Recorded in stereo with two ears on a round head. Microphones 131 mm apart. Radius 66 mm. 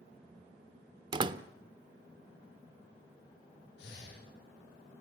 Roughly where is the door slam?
Right.